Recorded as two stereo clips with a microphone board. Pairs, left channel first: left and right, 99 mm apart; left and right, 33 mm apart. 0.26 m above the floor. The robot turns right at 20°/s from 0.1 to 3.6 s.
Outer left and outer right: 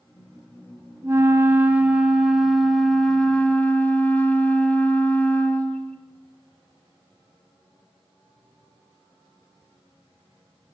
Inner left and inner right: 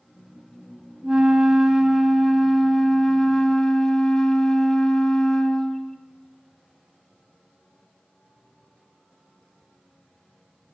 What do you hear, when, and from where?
1.0 s a flute: 30° right, 0.7 m; by 6.0 s 20° left, 0.7 m